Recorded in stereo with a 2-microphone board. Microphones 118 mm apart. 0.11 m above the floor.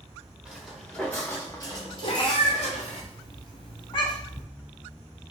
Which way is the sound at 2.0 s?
45° left (ahead or behind).